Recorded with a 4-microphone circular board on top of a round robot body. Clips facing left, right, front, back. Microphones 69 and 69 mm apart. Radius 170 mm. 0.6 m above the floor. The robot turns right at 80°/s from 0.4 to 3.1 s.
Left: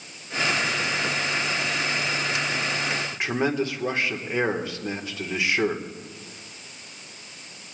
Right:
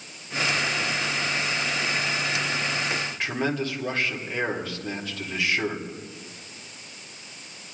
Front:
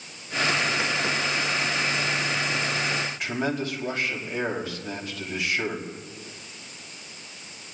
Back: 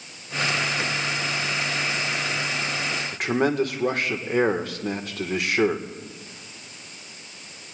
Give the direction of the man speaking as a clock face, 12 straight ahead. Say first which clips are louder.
Left 3 dB, back 6 dB; 7 o'clock.